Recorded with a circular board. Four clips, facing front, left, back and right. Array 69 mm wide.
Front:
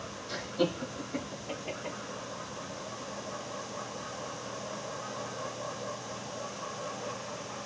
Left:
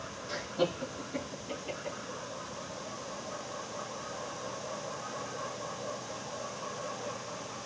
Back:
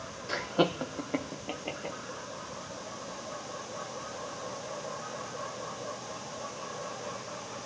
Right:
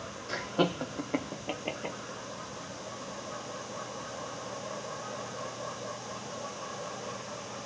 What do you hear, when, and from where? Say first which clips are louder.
0.3 s laughter: right 3 dB, back 3 dB; 160° right, 0.7 m; by 2.0 s 105° right, 1.2 m